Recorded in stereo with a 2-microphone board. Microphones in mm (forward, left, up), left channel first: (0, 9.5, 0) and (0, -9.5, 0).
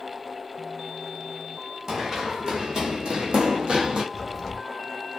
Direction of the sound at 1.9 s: 30° right (ahead or behind).